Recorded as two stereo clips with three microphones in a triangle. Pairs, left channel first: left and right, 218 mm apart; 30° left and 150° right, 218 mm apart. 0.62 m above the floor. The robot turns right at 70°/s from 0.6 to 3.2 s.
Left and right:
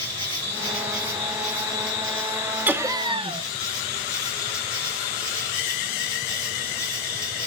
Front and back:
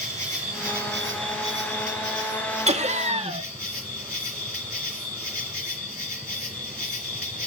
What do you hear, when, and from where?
0.0 s an insect: 155° left, 4 m; by 7.5 s 20° right, 4 m
2.7 s laughter: 165° right, 1.3 m; by 3.5 s 130° right, 1.3 m